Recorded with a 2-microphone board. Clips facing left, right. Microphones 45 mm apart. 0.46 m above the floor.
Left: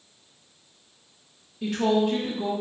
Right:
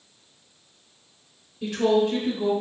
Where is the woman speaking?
5° left (ahead or behind), 0.8 m.